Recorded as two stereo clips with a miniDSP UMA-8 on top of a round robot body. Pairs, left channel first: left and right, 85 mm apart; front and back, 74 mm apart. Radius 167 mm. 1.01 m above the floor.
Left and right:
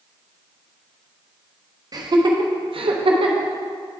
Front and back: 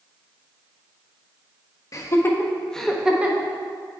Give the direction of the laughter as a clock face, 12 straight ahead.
2 o'clock.